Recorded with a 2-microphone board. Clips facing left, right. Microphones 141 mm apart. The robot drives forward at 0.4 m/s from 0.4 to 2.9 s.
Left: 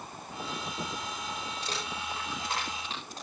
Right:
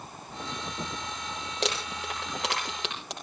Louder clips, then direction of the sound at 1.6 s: Right 5 dB; 85° right.